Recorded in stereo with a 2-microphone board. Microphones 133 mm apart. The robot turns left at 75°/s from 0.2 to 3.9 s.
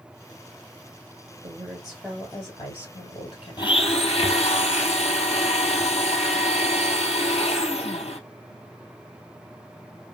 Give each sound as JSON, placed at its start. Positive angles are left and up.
{"t": 1.4, "sound": "a woman speaking", "azimuth_deg": -140, "distance_m": 1.5}
{"t": 3.6, "sound": "a blender", "side_deg": 35, "distance_m": 0.7}